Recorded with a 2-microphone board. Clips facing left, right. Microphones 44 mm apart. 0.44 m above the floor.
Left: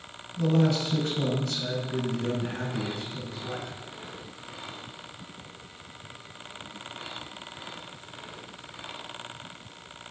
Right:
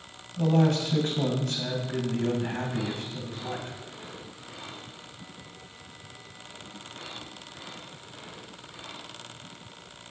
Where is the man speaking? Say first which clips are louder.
Right 1 dB; 50° right (ahead or behind), 2.5 m.